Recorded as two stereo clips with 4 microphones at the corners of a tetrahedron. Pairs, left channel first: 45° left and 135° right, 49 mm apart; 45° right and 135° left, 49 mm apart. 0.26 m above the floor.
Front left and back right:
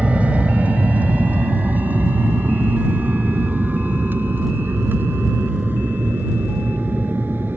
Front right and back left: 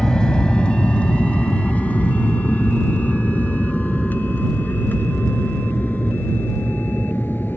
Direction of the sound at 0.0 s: 105° right.